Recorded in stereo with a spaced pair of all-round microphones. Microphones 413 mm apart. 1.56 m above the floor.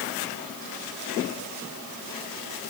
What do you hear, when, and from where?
Only background noise.